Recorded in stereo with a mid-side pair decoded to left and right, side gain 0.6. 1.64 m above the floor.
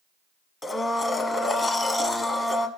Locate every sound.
0.6 s a blender: 20° left, 1.1 m